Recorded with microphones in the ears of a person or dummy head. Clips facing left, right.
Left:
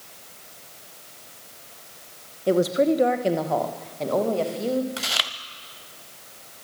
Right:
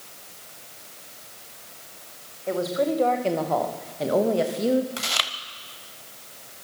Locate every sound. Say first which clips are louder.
2.5 s a woman speaking: left 5 dB; 45° left (ahead or behind), 1.9 m; by 4.9 s 25° right (ahead or behind), 3 m
5.0 s chewing: even; 5° left (ahead or behind), 1.0 m